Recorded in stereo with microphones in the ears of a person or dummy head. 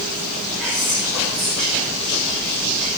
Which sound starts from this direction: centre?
Whispering, at 0.6 s.